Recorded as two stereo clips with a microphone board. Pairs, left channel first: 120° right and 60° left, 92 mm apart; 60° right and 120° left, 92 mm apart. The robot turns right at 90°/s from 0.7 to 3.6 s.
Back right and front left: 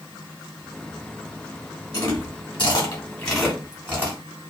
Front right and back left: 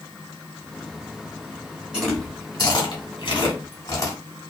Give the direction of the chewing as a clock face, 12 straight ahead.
5 o'clock.